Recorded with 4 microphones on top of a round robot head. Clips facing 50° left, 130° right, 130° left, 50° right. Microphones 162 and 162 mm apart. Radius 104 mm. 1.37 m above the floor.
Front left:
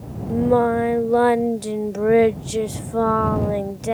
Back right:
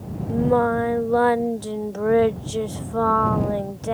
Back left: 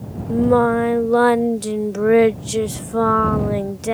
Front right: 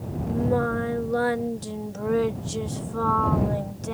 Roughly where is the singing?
Behind left.